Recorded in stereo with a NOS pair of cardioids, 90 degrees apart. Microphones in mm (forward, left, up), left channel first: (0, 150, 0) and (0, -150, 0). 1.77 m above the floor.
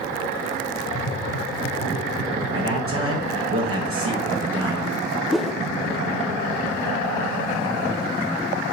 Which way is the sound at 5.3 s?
Straight ahead.